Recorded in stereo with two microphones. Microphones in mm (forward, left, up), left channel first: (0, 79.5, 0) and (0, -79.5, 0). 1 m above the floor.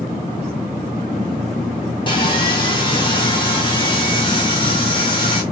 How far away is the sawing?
About 1.6 m.